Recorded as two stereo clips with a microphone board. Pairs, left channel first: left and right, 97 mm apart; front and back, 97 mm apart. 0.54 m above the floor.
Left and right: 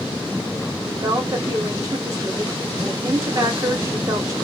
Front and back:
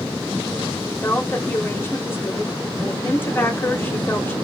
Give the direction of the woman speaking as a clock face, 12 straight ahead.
2 o'clock.